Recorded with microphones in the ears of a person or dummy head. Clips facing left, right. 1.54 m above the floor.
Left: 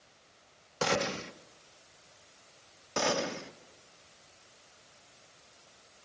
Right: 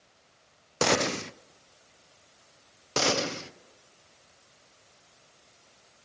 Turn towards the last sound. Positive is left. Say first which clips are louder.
# right 3 dB
turn(degrees=-55)  # may be behind; listen again after turning